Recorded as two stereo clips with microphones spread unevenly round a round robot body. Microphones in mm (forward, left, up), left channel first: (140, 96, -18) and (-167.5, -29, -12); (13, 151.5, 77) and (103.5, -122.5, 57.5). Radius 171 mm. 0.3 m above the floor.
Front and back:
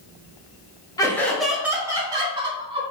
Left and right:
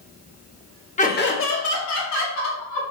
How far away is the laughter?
About 0.9 m.